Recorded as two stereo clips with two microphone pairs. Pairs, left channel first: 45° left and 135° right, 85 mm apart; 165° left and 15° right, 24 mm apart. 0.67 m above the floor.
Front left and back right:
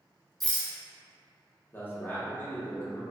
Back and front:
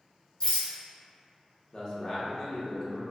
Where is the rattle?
135° left, 0.9 m.